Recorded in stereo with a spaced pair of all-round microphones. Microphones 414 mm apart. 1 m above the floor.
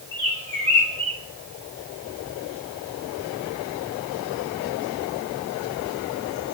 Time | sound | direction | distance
0.1 | a bird | 85° left | 3.5 m